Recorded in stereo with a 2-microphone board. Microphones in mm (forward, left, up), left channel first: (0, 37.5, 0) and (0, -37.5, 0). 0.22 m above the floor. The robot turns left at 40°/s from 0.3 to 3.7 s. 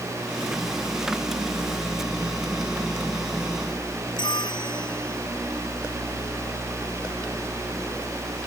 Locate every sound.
4.2 s a bell: 75° left (ahead or behind)